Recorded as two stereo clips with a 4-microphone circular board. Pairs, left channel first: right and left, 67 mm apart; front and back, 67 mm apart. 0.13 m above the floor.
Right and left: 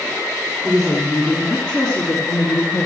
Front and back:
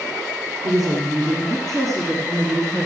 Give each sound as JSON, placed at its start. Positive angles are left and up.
{"t": 0.6, "sound": "a woman speaking", "azimuth_deg": 180, "distance_m": 2.5}